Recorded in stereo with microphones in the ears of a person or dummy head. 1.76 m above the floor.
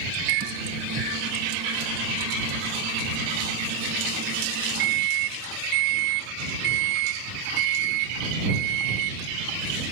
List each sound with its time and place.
0.3 s a microwave: 60° right (ahead or behind)